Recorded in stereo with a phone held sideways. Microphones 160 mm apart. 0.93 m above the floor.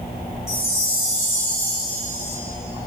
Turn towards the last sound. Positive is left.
turn(degrees=15)  # may be behind; listen again after turning